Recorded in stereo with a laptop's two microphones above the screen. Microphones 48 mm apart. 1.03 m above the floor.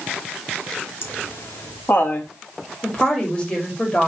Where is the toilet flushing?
No toilet flushing in this recording.